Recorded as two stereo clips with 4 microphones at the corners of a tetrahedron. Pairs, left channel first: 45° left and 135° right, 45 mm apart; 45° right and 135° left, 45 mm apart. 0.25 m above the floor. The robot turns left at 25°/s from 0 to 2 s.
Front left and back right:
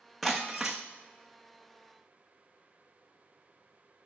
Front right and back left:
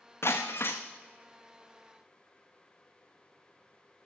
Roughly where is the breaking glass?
Ahead right.